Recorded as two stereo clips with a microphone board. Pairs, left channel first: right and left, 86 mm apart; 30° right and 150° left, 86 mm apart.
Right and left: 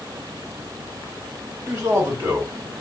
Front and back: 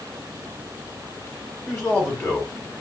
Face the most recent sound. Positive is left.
turn(degrees=30)